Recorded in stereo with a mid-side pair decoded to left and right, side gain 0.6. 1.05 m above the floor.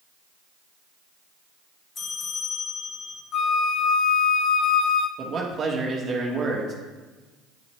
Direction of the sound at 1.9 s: 35° left.